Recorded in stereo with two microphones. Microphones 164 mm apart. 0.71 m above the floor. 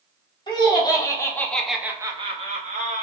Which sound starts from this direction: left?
Laughter, at 0.5 s.